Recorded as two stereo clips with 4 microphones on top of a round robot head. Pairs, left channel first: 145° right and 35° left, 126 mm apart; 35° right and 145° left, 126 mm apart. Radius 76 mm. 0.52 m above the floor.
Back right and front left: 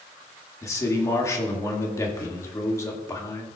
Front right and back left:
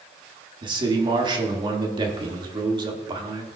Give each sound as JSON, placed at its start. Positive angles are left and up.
{"t": 0.6, "sound": "a man speaking", "azimuth_deg": 165, "distance_m": 1.6}